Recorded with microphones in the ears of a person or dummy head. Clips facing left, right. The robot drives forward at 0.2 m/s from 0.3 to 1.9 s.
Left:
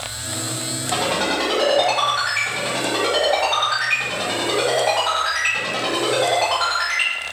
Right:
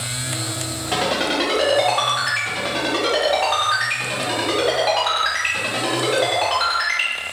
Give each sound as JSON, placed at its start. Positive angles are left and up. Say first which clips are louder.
{"t": 0.9, "sound": "a ringtone", "louder": "right 1 dB", "side_deg": -25, "distance_m": 1.8}